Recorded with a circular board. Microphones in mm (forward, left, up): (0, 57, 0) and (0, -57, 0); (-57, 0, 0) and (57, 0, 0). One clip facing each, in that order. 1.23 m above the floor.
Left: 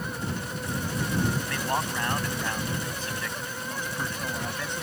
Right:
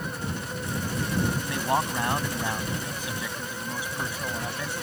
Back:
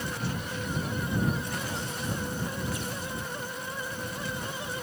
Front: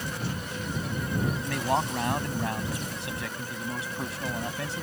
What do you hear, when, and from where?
1.4 s a man speaking: 20° right; by 4.8 s 5° right